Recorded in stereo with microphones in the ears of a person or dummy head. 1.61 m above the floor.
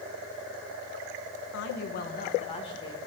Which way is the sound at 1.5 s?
70° left (ahead or behind).